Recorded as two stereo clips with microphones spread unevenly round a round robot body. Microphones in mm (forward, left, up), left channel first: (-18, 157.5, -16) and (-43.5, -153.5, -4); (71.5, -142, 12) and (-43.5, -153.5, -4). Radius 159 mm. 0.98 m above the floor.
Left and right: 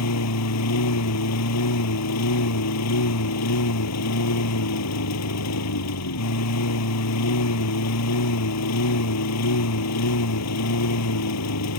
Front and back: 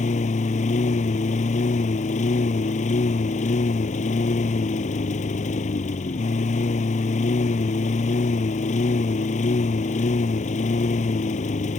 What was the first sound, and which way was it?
A lawn mower, 40° left.